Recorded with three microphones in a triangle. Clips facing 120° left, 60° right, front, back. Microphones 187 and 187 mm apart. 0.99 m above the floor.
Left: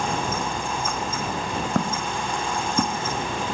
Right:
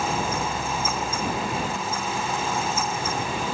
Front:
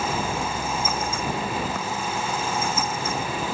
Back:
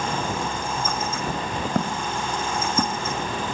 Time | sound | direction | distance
1.8 | footsteps | 140° left | ?